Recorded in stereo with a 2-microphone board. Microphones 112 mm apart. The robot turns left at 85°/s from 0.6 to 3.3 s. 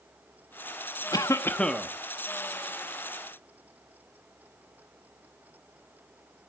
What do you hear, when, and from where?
1.1 s a cough: 60° left, 0.9 m; by 1.9 s 5° right, 0.9 m